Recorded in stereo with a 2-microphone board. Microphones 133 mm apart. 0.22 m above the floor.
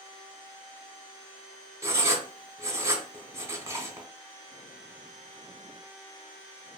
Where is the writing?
20° right (ahead or behind), 0.6 m.